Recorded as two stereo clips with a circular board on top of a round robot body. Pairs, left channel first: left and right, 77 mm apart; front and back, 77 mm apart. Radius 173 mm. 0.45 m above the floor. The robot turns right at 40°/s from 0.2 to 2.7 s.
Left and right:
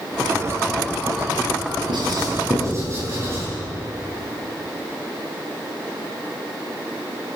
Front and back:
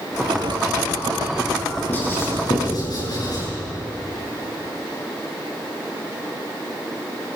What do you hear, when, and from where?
1.9 s writing: 70° right, 9 m; by 3.5 s 35° right, 9 m